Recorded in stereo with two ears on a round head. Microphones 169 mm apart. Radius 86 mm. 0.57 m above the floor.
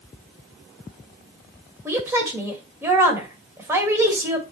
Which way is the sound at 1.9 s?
15° right (ahead or behind).